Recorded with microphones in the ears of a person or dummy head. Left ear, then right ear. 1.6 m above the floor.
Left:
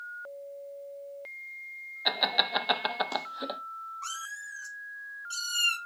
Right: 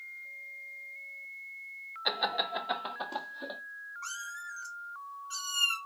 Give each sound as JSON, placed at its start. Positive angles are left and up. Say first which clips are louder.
{"t": 2.0, "sound": "laughter", "louder": "left 4 dB", "side_deg": 5, "distance_m": 0.7}
{"t": 4.0, "sound": "a cat meowing", "louder": "even", "side_deg": 35, "distance_m": 1.1}